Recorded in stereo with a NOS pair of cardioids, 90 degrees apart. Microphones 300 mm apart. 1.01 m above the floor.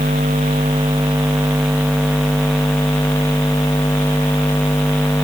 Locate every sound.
Only background noise.